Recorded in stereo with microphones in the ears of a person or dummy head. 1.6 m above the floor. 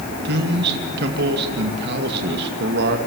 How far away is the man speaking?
About 2 m.